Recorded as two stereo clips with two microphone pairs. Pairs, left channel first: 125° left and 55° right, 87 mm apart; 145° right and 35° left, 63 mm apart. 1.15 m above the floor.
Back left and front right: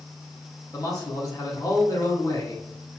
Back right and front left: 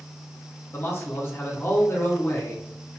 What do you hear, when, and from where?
0.7 s a man speaking: 165° left, 0.7 m